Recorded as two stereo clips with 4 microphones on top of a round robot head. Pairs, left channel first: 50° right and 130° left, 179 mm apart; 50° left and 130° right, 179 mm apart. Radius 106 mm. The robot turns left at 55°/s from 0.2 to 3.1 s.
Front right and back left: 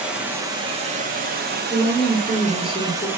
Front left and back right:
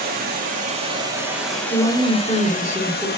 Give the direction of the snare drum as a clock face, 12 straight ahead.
I don't hear a snare drum.